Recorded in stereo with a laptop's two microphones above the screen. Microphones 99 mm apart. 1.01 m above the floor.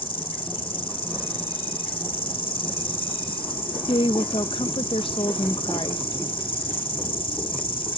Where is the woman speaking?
65° left (ahead or behind).